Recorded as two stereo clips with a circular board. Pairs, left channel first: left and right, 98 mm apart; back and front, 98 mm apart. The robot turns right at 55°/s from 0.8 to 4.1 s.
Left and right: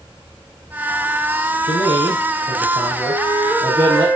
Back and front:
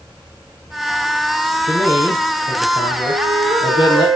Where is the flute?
35° right, 4.5 m; by 4.2 s 25° left, 4.5 m.